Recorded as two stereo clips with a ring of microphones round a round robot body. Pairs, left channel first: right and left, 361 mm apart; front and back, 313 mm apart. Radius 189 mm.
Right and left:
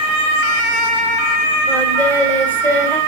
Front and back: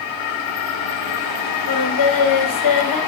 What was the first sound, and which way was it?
Singing, 5° right.